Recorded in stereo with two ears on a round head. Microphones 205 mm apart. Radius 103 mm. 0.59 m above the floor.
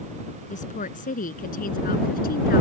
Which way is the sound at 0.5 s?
35° left (ahead or behind).